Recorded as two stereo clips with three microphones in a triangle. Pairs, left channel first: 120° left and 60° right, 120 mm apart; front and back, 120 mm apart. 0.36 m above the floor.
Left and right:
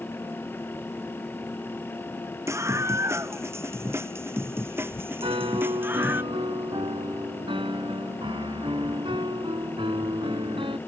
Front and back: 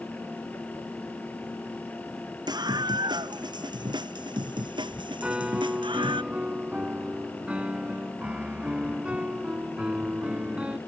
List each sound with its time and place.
2.5 s a scream: 125° right; by 6.2 s 135° right
5.2 s a piano: 100° right